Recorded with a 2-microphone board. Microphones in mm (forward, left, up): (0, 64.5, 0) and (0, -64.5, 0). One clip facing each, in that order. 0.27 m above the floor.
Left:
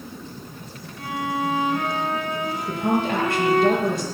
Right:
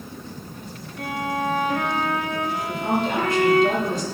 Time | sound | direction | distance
1.0 | a violin | 55° right (ahead or behind) | 4 m
2.7 | a woman speaking | 60° left (ahead or behind) | 6 m